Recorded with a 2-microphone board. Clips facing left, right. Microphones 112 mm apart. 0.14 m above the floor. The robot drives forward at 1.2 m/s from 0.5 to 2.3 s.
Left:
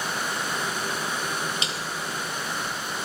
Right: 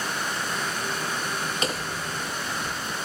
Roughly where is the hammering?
Right.